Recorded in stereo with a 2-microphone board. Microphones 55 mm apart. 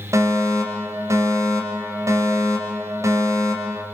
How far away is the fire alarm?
About 5.5 m.